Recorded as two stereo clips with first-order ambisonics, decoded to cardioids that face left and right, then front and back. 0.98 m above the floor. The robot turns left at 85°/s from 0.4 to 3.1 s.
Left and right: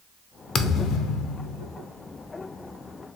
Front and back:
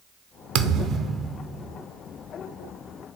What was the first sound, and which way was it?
A thud, 155° left.